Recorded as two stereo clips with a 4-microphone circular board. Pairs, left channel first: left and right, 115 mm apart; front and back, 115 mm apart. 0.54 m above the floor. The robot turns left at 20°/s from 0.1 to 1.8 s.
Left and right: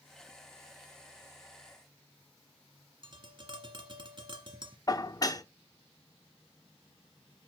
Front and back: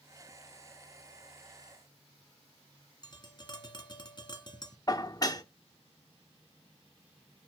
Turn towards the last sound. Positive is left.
turn(degrees=45)